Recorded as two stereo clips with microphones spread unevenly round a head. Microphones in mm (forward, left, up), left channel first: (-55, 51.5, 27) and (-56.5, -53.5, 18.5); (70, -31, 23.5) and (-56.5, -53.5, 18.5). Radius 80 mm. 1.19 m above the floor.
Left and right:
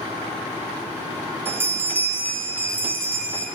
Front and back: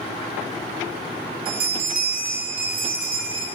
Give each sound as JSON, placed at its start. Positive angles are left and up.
{"t": 1.4, "sound": "a bell", "azimuth_deg": -160, "distance_m": 0.8}